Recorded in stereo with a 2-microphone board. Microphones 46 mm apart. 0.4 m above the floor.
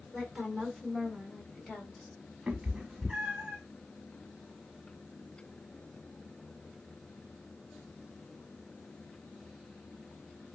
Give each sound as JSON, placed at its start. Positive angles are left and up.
{"t": 0.1, "sound": "a woman speaking", "side_deg": 15, "distance_m": 1.2}
{"t": 2.5, "sound": "a cat meowing", "side_deg": -15, "distance_m": 0.7}